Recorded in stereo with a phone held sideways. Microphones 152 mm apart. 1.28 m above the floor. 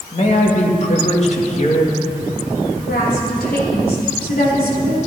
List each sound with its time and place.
0.1 s a man speaking: 45° left (ahead or behind), 2.0 m
2.7 s a woman speaking: 80° left, 3 m